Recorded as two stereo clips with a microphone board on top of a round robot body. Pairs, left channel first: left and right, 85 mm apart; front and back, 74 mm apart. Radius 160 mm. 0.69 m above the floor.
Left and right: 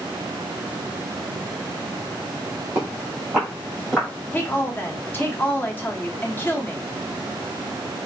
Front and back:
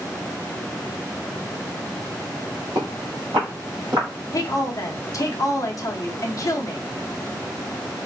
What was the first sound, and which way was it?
Footsteps, 155° right.